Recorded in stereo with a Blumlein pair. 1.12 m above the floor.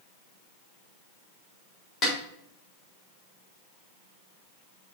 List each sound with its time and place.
2.0 s a snare drum: 25° left, 4 m